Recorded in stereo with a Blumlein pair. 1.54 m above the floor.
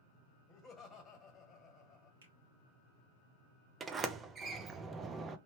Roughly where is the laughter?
Ahead left.